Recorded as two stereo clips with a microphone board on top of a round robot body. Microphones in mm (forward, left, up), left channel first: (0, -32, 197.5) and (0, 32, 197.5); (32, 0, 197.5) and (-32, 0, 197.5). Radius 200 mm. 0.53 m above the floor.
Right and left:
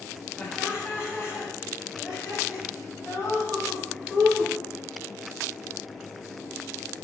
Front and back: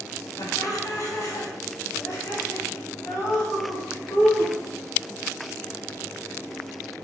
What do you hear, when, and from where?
0.4 s laughter: 30° right, 3 m; by 4.5 s 60° right, 5.5 m